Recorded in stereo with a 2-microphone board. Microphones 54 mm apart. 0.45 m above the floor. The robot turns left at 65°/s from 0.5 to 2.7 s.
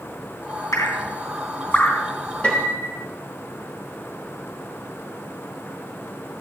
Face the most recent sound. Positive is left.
turn(degrees=40)  # may be behind; listen again after turning